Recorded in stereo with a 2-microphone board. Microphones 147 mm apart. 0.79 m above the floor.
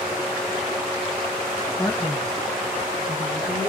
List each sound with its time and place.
1.8 s a man speaking: 15° left (ahead or behind), 1.0 m; by 3.7 s 10° right (ahead or behind), 2 m